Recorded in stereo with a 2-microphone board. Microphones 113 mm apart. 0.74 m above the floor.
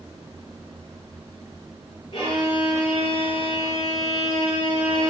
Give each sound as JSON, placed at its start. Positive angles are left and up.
{"t": 2.1, "sound": "a violin", "side_deg": 50, "distance_m": 8.0}